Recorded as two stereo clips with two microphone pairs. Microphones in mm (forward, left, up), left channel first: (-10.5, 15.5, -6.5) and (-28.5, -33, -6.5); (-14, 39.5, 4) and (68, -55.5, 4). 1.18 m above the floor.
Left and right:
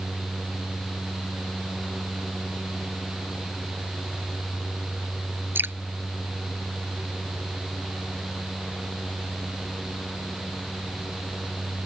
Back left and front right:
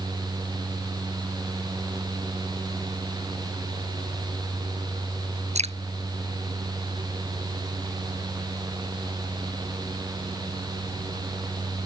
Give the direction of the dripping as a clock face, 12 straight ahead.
2 o'clock.